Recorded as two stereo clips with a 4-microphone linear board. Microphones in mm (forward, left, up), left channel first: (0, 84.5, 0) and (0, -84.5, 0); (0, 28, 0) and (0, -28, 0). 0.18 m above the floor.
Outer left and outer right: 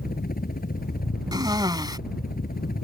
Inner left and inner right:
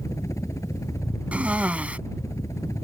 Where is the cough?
25° right (ahead or behind).